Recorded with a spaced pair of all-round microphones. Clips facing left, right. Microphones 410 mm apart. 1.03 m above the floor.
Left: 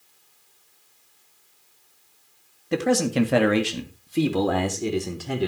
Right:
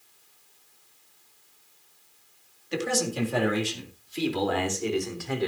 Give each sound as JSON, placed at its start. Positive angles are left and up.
{"t": 2.7, "sound": "a man speaking", "side_deg": 65, "distance_m": 2.0}